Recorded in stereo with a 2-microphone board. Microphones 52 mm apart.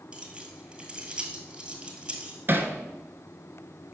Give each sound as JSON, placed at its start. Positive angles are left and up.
{"t": 0.1, "sound": "keys jangling", "side_deg": -15, "distance_m": 1.6}
{"t": 2.5, "sound": "hammering", "side_deg": -40, "distance_m": 0.9}